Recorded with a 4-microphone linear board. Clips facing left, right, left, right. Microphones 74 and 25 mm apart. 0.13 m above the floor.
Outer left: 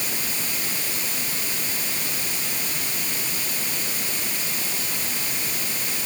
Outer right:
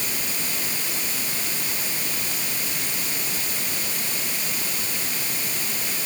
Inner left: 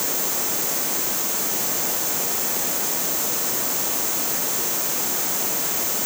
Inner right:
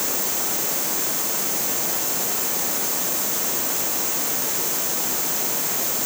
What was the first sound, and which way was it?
Only background noise.